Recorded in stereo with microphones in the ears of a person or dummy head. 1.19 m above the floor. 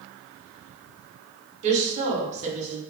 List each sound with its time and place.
1.6 s a woman speaking: 40° right (ahead or behind), 1.0 m